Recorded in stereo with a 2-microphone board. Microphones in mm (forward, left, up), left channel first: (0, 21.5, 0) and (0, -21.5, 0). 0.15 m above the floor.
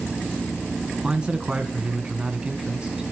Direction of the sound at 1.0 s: 20° right (ahead or behind).